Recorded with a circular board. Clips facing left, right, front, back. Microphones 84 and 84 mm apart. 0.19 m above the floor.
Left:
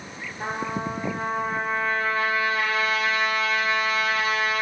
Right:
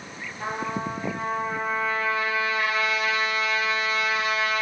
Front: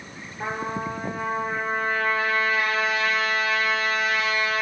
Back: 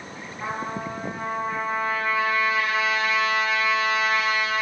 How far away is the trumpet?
About 0.9 m.